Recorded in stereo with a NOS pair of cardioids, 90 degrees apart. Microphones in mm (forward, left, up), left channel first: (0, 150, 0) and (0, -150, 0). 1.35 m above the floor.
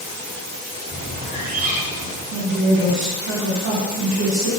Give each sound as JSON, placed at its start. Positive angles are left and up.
{"t": 0.9, "sound": "a bird", "azimuth_deg": -30, "distance_m": 0.9}
{"t": 2.3, "sound": "a woman speaking", "azimuth_deg": -65, "distance_m": 1.6}